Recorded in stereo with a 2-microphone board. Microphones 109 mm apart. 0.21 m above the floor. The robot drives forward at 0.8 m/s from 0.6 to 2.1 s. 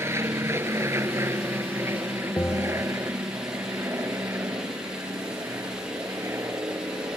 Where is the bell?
25° left (ahead or behind).